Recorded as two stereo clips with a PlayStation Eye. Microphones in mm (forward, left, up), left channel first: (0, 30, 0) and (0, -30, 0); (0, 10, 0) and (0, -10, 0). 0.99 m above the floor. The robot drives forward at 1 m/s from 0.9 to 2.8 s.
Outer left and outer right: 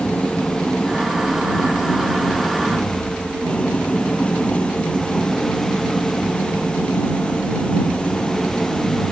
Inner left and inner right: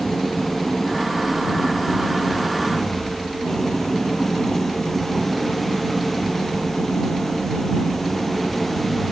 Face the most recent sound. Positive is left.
turn(degrees=20)  # may be behind; listen again after turning